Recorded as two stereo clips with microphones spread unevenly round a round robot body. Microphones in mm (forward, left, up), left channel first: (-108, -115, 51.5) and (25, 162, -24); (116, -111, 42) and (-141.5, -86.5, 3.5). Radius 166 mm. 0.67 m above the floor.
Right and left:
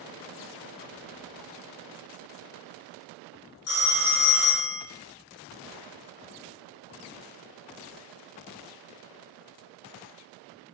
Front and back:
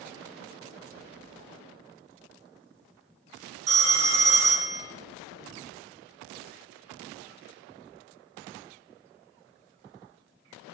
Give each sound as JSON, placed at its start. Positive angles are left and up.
{"t": 3.7, "sound": "a phone ringing", "azimuth_deg": -165, "distance_m": 0.6}